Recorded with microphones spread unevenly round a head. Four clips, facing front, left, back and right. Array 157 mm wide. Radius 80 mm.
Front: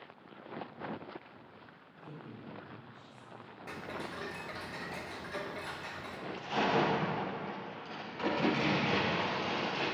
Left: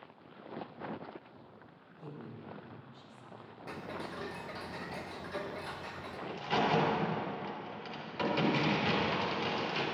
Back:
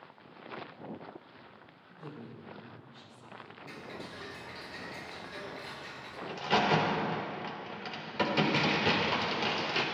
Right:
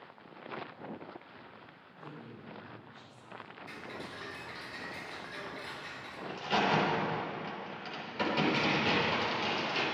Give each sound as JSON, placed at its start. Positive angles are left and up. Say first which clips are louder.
{"t": 1.9, "sound": "a woman speaking", "louder": "left 1 dB, back 3 dB", "azimuth_deg": 155, "distance_m": 4.5}
{"t": 3.7, "sound": "ticking", "louder": "left 4 dB, front 4 dB", "azimuth_deg": 60, "distance_m": 1.0}
{"t": 6.3, "sound": "a crack", "louder": "right 1 dB, back 4 dB", "azimuth_deg": 180, "distance_m": 4.0}